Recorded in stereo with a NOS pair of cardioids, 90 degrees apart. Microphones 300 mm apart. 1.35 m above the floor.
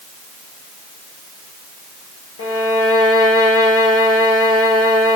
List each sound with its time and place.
2.4 s a violin: 50° left, 4 m